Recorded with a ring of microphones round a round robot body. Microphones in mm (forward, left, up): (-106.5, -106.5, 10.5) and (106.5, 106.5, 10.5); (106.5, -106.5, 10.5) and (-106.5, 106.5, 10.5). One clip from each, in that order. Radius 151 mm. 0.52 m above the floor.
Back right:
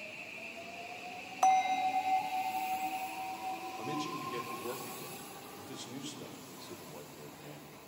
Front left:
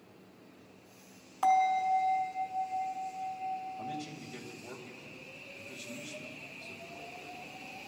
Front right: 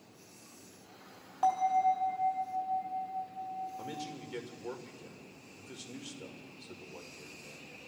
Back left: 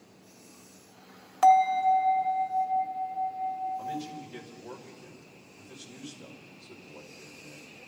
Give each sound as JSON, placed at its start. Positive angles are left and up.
{"t": 1.4, "sound": "a bell", "azimuth_deg": 150, "distance_m": 1.1}
{"t": 3.8, "sound": "a man speaking", "azimuth_deg": -85, "distance_m": 2.0}